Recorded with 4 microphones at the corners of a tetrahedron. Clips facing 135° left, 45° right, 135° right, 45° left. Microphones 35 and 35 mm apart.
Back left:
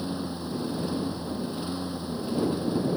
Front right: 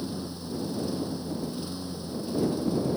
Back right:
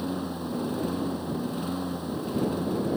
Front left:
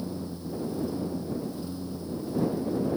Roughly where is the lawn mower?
Behind.